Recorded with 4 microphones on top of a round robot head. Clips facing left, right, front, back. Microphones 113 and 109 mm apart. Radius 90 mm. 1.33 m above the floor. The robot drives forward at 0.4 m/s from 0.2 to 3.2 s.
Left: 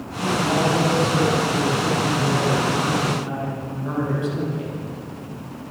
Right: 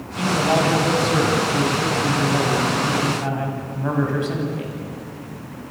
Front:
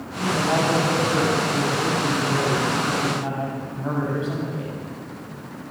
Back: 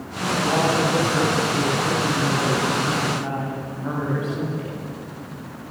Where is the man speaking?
60° right, 9.5 m; by 4.8 s 70° right, 9 m.